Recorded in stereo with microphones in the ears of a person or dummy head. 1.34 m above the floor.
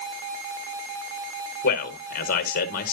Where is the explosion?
I don't hear an explosion.